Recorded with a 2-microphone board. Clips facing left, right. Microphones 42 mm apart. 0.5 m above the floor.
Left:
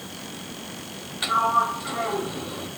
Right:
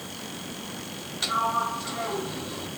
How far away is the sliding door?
About 0.8 m.